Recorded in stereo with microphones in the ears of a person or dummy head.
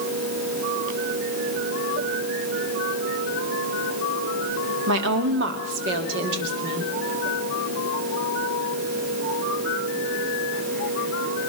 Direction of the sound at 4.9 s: 60° right (ahead or behind).